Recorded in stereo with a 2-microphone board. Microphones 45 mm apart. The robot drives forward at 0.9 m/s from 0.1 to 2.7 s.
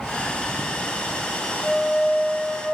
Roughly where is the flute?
Centre.